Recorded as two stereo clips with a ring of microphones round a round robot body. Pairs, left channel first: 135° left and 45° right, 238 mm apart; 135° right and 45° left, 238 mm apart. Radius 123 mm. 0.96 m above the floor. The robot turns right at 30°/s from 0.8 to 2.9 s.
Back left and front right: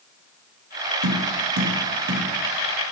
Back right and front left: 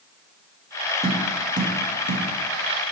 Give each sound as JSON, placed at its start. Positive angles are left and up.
{"t": 1.0, "sound": "tapping", "azimuth_deg": -30, "distance_m": 1.5}